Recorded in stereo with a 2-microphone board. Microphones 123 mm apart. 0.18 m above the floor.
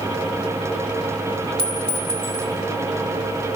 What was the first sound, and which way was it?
A clink, 45° right (ahead or behind).